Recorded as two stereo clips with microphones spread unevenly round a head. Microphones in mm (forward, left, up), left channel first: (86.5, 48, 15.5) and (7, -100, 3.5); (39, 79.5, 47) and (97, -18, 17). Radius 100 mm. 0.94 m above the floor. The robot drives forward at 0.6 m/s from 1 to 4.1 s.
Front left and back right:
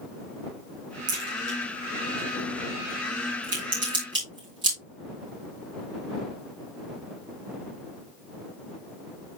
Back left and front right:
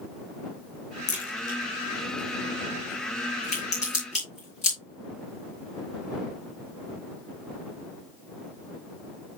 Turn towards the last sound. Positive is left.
turn(degrees=175)